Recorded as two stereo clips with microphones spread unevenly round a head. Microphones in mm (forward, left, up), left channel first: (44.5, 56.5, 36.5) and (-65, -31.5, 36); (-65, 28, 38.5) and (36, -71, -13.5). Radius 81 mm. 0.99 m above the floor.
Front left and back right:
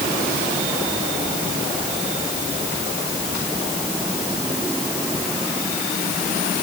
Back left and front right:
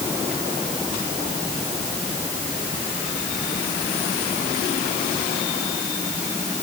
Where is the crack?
I don't hear a crack.